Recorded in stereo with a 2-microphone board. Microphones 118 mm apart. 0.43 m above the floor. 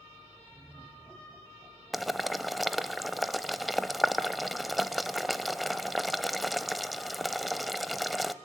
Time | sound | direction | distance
0.5 | laughter | 10° right (ahead or behind) | 4 m
1.9 | boiling | centre (ahead or behind) | 0.7 m